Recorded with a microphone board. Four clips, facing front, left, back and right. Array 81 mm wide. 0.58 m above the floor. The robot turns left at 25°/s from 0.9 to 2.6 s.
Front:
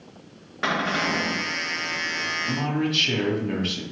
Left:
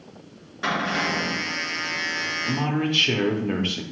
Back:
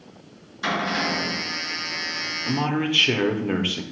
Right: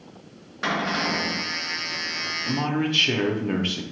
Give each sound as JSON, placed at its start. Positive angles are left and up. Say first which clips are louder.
{"t": 0.6, "sound": "a cupboard door", "louder": "even, even", "azimuth_deg": -10, "distance_m": 2.0}
{"t": 2.5, "sound": "a man speaking", "louder": "even, back 3 dB", "azimuth_deg": -175, "distance_m": 0.6}